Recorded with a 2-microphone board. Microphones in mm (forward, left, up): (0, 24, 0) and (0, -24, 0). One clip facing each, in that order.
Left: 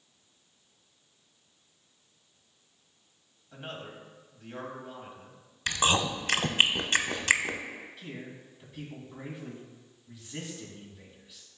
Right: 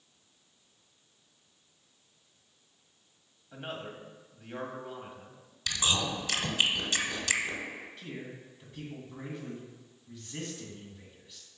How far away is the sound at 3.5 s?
About 1.3 m.